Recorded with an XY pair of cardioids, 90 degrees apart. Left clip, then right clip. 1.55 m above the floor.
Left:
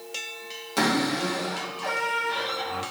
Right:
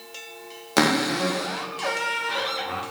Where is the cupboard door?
65° right, 1.5 m.